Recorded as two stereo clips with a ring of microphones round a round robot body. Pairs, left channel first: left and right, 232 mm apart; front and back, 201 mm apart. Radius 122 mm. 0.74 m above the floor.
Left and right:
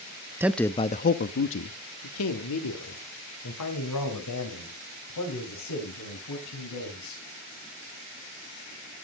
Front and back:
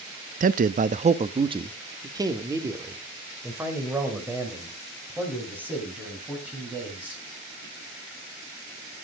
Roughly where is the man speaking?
Behind.